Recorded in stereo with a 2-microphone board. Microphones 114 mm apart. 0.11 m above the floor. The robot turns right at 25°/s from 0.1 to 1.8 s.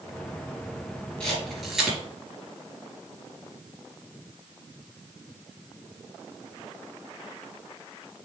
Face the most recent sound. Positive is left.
turn(degrees=0)  # may be behind; listen again after turning